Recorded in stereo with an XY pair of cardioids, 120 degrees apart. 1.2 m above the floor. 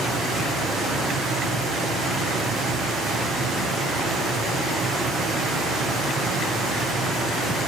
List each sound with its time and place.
0.0 s running water: 70° right, 9 m